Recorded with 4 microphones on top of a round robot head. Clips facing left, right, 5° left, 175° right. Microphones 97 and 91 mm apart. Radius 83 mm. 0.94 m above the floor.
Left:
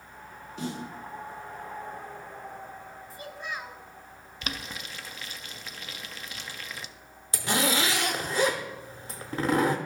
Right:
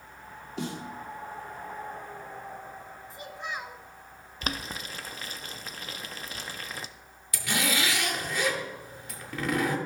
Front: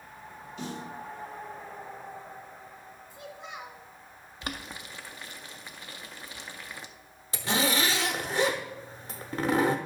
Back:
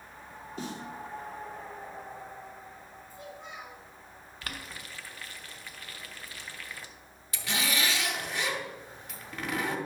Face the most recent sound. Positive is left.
turn(degrees=45)